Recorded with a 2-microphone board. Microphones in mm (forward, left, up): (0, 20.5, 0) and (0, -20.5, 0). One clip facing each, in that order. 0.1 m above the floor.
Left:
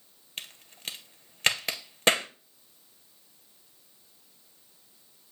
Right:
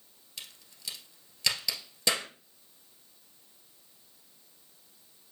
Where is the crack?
45° left (ahead or behind), 0.8 m.